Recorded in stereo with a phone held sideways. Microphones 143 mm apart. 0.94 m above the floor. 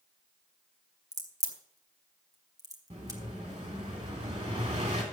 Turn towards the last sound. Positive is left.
turn(degrees=-50)  # may be behind; listen again after turning